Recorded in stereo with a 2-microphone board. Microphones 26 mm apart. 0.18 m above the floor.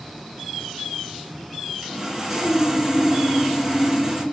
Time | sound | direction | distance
1.8 | sawing | 10° right (ahead or behind) | 0.6 m